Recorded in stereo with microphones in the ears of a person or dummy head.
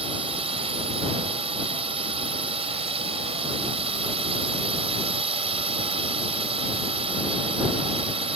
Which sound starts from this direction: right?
A drone, at 0.0 s.